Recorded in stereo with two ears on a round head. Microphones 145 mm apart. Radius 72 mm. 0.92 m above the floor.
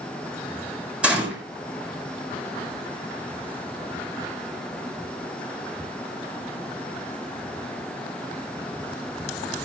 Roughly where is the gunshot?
Centre.